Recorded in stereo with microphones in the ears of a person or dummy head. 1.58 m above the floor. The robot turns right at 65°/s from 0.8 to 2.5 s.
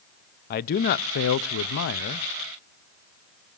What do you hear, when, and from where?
0.5 s a man speaking: 50° left, 0.5 m; by 2.3 s 150° left, 0.5 m